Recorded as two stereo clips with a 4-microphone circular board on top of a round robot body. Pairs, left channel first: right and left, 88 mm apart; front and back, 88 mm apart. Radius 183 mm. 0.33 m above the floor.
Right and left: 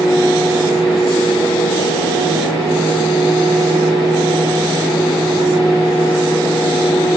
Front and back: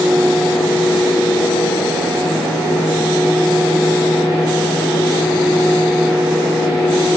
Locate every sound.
Only background noise.